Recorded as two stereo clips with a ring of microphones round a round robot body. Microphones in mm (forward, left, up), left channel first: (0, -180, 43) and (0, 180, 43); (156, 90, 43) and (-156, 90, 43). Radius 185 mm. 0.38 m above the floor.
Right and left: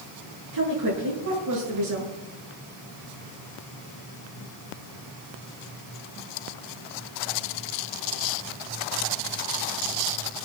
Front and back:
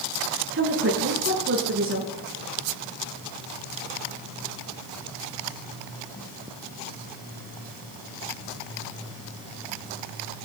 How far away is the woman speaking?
About 8.5 m.